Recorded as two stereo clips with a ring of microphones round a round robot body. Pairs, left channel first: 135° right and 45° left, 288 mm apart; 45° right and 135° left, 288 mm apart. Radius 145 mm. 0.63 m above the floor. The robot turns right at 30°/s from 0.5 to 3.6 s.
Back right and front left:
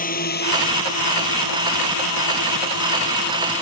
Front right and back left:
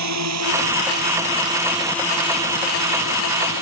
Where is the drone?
165° left; by 3.6 s 65° right.